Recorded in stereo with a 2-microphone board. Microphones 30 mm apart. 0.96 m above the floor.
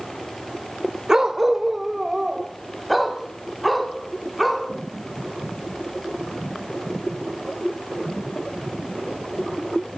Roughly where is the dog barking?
Centre.